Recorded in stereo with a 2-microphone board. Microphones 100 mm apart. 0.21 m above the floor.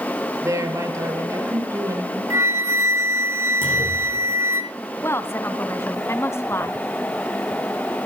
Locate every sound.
0.4 s a woman speaking: 30° right (ahead or behind), 5.5 m
2.3 s a flute: 25° right (ahead or behind), 2.5 m
3.6 s a clunk: 60° left (ahead or behind), 9 m
5.0 s a woman speaking: 25° left (ahead or behind), 1.4 m